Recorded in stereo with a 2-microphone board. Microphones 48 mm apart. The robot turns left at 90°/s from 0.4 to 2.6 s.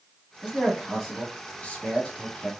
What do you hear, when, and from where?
0.4 s a man speaking: 20° right (ahead or behind), 1.5 m; by 2.5 s 20° left (ahead or behind), 1.5 m